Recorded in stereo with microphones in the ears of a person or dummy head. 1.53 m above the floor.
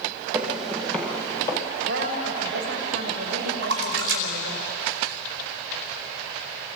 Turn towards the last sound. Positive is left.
turn(degrees=-70)  # may be behind; listen again after turning